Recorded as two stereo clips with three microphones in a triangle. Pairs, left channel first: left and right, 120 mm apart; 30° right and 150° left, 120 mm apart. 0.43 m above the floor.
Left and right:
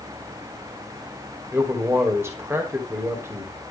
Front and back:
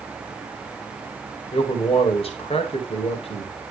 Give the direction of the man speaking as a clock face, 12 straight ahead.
1 o'clock.